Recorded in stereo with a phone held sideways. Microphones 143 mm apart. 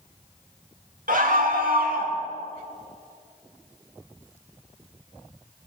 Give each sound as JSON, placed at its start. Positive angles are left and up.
{"t": 1.1, "sound": "a scream", "side_deg": -70, "distance_m": 2.0}